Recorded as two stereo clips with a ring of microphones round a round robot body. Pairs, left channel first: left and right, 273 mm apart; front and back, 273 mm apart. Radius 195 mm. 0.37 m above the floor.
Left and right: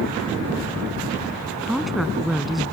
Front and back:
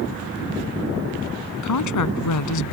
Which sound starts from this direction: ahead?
A woman speaking, at 1.6 s.